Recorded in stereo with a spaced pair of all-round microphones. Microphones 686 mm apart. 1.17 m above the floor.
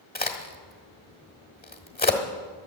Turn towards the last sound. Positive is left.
turn(degrees=15)  # may be behind; listen again after turning